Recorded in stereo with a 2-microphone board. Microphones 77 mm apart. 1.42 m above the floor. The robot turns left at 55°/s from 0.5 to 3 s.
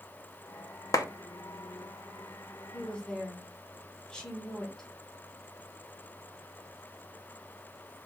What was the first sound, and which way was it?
A clap, 55° left (ahead or behind).